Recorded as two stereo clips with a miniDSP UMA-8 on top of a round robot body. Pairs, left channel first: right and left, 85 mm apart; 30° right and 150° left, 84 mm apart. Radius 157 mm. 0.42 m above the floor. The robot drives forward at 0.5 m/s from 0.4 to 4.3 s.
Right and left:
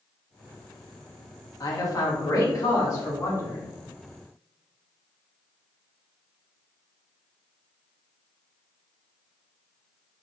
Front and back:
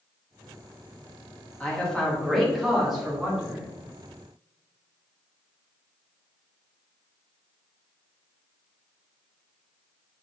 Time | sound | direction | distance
1.6 | a man speaking | 105° right | 1.9 m